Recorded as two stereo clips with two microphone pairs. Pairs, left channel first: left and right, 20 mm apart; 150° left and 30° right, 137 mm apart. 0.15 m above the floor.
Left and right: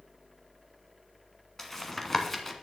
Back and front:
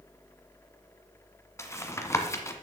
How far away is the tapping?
About 1.2 m.